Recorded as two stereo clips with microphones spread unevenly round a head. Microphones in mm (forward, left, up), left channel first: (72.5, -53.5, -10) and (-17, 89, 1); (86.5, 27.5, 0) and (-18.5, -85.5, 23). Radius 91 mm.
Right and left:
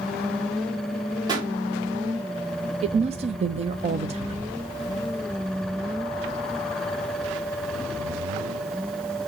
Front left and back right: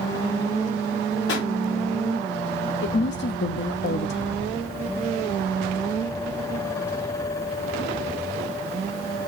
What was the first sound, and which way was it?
A pop, 55° left.